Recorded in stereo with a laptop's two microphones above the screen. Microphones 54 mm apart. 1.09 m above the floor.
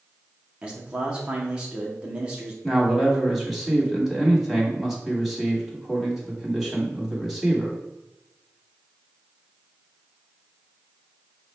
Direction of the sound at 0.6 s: 15° right (ahead or behind).